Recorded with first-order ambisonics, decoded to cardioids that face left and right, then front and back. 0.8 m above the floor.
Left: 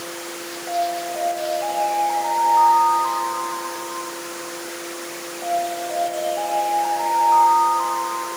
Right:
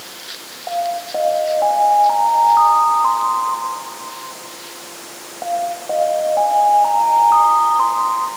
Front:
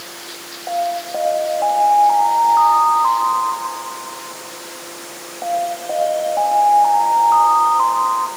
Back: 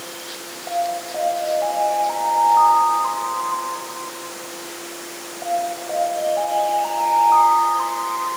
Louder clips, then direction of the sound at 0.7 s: Right 2 dB, front 3 dB; 65° right.